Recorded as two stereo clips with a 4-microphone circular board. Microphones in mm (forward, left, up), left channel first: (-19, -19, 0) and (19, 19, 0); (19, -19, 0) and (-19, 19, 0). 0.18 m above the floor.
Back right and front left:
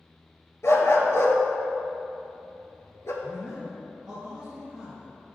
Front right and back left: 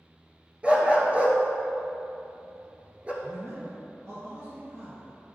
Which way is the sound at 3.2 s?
120° left.